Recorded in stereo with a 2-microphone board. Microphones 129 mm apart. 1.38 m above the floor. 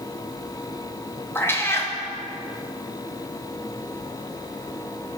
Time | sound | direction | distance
1.4 | a cat meowing | 20° left (ahead or behind) | 0.6 m